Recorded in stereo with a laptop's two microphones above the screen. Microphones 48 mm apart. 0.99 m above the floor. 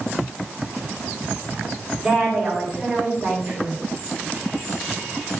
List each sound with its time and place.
2.0 s a woman speaking: 20° right (ahead or behind), 3.5 m